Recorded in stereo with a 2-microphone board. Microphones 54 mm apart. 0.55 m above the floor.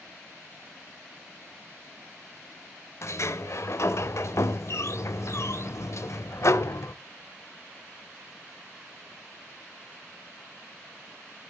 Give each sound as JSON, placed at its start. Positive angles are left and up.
{"t": 3.0, "sound": "a sliding door", "side_deg": 60, "distance_m": 0.7}